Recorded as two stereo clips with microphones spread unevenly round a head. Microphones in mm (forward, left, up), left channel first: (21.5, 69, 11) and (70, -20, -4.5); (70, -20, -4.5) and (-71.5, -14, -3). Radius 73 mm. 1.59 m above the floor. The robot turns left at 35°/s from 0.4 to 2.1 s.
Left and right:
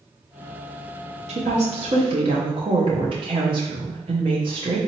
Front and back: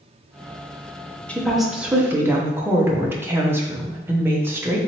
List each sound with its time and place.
1.3 s a woman speaking: 85° right, 0.7 m; by 4.8 s 110° right, 0.7 m